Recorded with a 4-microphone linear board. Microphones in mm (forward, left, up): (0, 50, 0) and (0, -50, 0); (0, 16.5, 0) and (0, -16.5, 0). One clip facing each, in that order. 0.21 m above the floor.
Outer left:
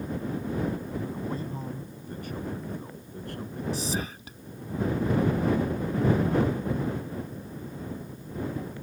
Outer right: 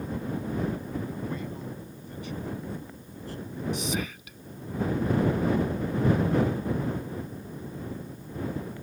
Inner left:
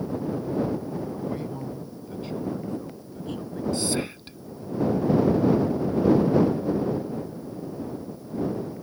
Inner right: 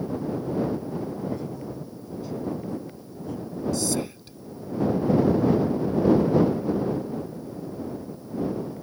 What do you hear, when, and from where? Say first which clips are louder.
1.1 s a man speaking: outer left 1 dB, even; 30° left (ahead or behind); by 3.6 s 65° left (ahead or behind)
3.7 s whispering: even, inner left 1 dB; 35° left (ahead or behind)